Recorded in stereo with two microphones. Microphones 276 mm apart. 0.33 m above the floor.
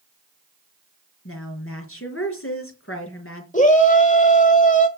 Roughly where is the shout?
Left.